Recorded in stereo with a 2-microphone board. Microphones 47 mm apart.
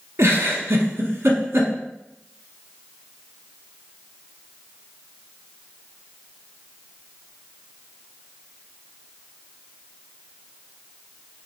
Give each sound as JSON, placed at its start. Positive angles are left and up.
{"t": 0.2, "sound": "a giggle", "side_deg": -70, "distance_m": 0.9}